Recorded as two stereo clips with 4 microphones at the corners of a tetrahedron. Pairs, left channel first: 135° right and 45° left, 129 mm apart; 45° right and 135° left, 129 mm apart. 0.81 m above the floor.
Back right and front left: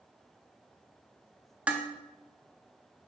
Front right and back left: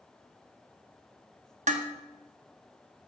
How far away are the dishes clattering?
About 0.7 m.